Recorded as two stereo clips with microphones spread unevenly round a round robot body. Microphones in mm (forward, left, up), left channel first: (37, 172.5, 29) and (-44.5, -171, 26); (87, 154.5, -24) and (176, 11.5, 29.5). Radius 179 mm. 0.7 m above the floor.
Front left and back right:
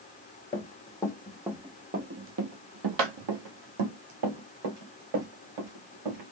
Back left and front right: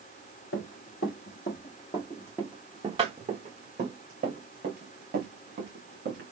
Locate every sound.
0.5 s running footsteps: 145° left, 1.4 m; by 6.3 s 75° right, 3 m